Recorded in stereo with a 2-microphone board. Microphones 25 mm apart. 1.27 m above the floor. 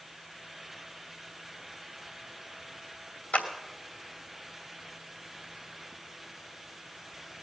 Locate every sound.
3.3 s a clap: 70° left (ahead or behind), 2.5 m